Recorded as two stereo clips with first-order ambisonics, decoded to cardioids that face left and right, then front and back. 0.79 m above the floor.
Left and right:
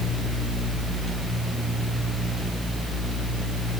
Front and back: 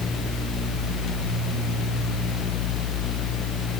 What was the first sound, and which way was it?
Only background noise.